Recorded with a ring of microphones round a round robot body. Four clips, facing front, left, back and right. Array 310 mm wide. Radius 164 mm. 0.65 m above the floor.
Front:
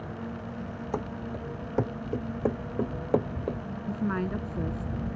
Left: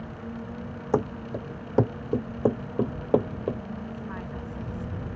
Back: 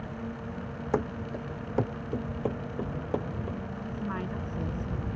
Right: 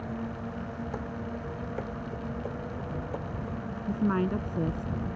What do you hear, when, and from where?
0.9 s running footsteps: 105° left; by 3.6 s 65° left
3.9 s a woman speaking: 70° right